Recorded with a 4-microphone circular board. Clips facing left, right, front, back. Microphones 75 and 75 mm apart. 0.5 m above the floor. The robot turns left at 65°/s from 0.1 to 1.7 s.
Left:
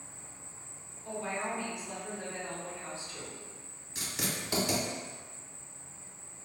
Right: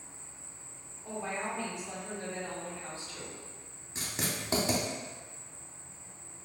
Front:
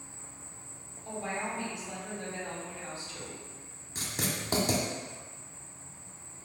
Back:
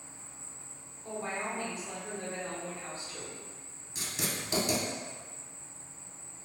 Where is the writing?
35° right, 0.6 m.